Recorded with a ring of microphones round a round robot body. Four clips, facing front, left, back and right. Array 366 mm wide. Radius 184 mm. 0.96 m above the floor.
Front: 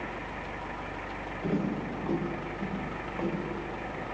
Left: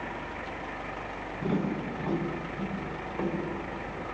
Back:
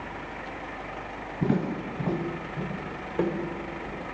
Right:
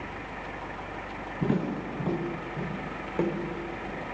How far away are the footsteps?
About 5.5 m.